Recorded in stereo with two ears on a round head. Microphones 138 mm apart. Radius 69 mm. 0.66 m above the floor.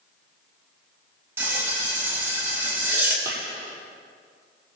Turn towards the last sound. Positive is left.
turn(degrees=-15)  # may be behind; listen again after turning